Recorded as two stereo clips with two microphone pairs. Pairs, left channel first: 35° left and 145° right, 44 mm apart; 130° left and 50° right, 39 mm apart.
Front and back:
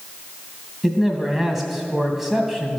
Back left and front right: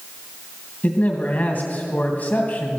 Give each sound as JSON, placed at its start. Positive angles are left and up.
{"t": 0.8, "sound": "a man speaking", "azimuth_deg": 130, "distance_m": 2.0}